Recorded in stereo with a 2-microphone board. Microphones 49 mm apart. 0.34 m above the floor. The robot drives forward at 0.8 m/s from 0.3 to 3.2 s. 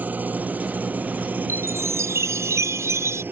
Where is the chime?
75° right (ahead or behind).